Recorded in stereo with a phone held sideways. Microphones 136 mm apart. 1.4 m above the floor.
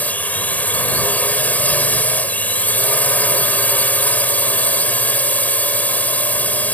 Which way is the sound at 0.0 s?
10° left (ahead or behind).